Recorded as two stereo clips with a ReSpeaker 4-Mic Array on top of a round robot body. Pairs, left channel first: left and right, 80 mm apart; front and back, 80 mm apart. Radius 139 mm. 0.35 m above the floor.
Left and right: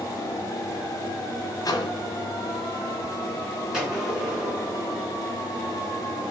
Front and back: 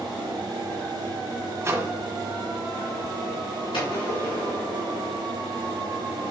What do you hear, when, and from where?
1.6 s a microwave: 125° left, 1.2 m
3.7 s a gunshot: 10° right, 3.5 m